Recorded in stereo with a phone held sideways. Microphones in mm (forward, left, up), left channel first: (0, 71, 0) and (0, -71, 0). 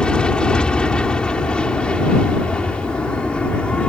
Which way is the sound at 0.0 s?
5° left (ahead or behind).